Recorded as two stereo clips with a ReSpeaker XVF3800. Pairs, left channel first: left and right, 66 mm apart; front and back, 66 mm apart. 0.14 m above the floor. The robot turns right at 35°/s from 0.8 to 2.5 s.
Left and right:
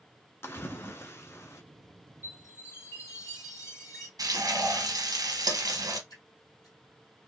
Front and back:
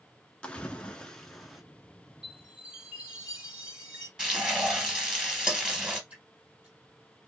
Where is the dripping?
110° left, 2.5 m.